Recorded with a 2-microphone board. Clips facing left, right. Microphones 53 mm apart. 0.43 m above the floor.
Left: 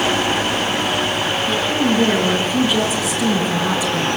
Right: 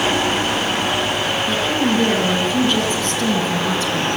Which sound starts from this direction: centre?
A woman speaking, at 1.5 s.